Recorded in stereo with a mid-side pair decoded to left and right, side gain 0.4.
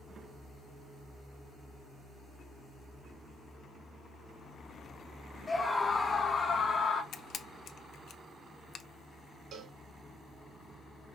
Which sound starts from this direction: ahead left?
A scream, at 5.5 s.